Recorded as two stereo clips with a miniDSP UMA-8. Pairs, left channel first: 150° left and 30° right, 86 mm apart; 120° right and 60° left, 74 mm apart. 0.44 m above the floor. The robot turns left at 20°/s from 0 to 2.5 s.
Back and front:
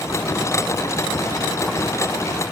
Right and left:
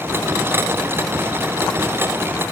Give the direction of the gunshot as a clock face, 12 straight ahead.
I don't hear a gunshot.